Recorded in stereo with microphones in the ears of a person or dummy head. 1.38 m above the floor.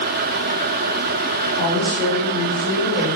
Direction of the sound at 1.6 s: 10° left (ahead or behind).